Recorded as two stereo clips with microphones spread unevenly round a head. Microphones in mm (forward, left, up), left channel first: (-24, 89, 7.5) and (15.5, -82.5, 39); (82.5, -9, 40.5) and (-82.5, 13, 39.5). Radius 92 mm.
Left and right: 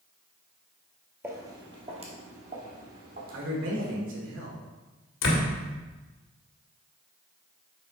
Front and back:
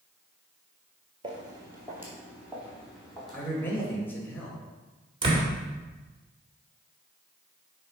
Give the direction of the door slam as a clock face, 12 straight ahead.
8 o'clock.